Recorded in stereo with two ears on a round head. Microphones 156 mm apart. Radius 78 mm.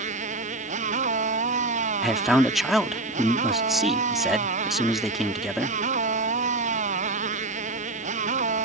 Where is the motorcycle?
45° right (ahead or behind).